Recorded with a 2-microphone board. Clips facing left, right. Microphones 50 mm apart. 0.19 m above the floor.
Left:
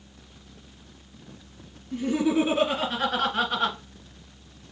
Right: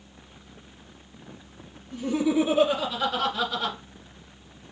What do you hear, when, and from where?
1.9 s laughter: 65° left (ahead or behind), 3 m; by 3.8 s 55° left (ahead or behind), 1.7 m